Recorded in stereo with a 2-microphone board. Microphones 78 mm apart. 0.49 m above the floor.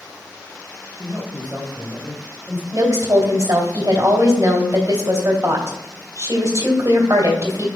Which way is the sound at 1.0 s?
30° right (ahead or behind).